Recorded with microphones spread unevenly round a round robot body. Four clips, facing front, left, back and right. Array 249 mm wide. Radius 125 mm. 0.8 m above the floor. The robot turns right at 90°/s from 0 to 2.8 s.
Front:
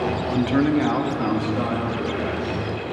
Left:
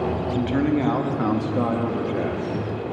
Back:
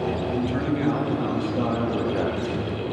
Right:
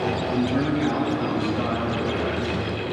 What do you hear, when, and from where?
0.3 s a man speaking: 15° right, 1.1 m; by 3.0 s 155° right, 1.1 m